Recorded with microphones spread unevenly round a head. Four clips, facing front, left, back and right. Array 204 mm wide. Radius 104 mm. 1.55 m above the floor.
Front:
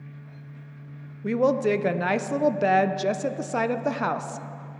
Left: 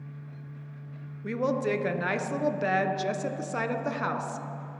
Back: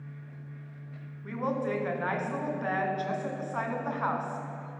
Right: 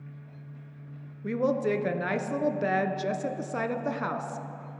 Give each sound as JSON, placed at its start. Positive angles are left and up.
{"t": 1.2, "sound": "a woman speaking", "azimuth_deg": 0, "distance_m": 0.6}